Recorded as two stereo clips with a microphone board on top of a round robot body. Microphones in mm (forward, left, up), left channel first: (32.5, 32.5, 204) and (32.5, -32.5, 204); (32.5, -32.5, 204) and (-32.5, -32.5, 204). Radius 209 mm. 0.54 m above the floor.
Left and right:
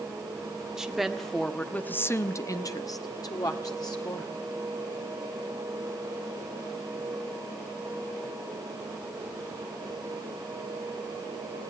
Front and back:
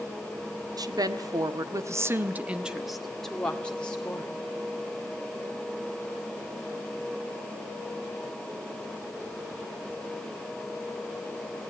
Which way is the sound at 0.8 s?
170° right.